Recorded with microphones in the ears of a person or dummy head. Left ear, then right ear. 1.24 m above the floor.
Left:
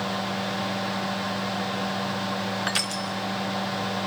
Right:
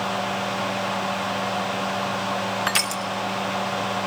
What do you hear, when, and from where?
0.0 s a fan: 30° right (ahead or behind), 1.1 m
2.7 s crushing: 30° right (ahead or behind), 0.6 m